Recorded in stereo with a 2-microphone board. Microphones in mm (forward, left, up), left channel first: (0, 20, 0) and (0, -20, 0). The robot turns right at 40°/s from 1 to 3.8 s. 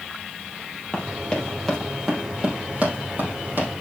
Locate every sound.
0.9 s running footsteps: 30° left (ahead or behind), 3.5 m; by 3.7 s 65° right (ahead or behind), 4.5 m